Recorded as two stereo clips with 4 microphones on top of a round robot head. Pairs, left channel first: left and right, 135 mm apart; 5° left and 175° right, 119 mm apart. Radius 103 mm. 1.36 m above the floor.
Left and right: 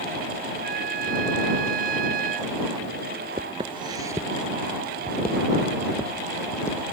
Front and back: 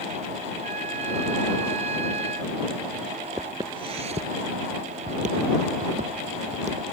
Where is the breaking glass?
No breaking glass in this recording.